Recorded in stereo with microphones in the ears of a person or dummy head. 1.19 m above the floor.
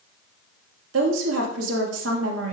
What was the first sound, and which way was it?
A woman speaking, 85° right.